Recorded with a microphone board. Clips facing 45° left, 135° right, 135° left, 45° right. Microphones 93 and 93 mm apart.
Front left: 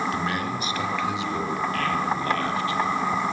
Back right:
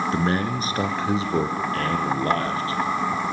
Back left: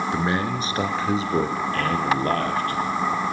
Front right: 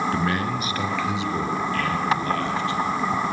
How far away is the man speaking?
About 2 m.